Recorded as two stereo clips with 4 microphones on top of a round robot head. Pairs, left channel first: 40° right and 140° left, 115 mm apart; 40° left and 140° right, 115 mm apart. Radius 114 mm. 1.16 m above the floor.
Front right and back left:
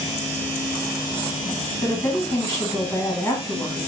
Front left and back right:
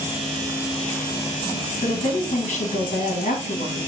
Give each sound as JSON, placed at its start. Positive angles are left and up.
{"t": 1.8, "sound": "a woman speaking", "azimuth_deg": 45, "distance_m": 0.9}